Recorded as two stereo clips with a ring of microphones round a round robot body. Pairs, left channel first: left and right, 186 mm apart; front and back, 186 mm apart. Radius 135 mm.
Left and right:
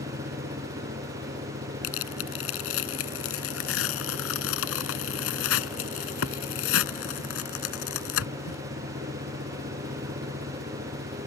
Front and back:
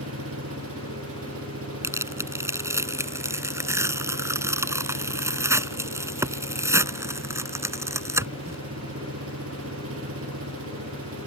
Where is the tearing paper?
105° left.